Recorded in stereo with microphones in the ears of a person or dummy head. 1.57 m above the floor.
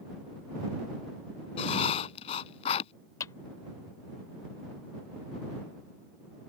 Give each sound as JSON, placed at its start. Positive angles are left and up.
{"t": 1.6, "sound": "writing", "side_deg": 35}
{"t": 3.2, "sound": "a clap", "side_deg": 20}